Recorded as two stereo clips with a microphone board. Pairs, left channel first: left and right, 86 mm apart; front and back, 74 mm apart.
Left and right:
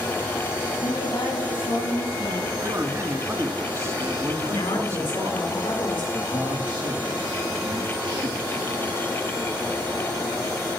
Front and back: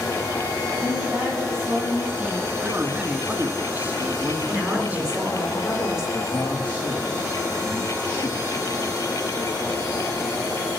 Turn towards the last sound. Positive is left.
turn(degrees=-60)